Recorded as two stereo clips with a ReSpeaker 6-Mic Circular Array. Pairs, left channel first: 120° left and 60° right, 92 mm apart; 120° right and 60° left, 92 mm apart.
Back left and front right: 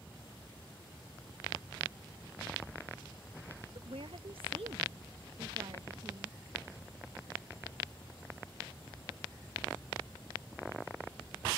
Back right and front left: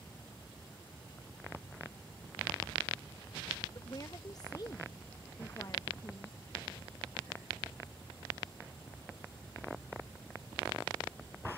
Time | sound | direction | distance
3.8 | a woman speaking | 70° right | ?